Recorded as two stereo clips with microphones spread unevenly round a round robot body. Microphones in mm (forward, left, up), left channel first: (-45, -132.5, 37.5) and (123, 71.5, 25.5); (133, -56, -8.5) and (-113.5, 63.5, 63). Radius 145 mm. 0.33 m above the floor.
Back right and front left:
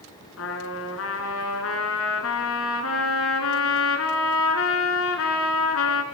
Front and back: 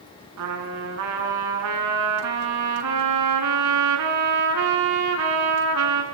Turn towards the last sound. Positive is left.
turn(degrees=-175)